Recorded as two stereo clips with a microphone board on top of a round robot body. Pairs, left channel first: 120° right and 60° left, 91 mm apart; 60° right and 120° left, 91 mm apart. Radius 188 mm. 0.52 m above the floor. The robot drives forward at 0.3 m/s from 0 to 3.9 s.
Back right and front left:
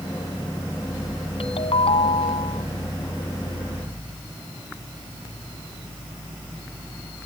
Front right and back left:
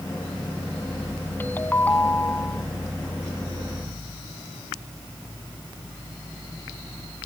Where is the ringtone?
130° right; by 2.6 s 135° right.